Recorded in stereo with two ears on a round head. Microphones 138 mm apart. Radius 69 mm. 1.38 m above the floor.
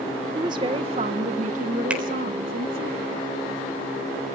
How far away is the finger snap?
About 4 m.